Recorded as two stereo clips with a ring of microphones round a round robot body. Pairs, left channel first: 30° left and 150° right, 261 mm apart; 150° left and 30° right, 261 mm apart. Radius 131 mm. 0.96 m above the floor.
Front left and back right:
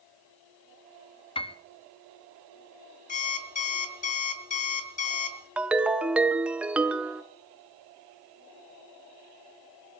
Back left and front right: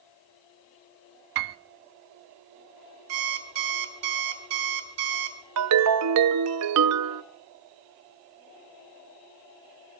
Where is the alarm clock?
30° right, 2 m.